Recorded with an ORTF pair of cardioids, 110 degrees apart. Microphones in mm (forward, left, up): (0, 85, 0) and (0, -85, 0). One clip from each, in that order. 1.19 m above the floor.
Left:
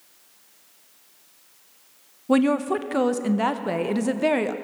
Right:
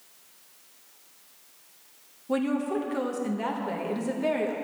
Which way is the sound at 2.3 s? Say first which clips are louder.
Left 7 dB; 45° left.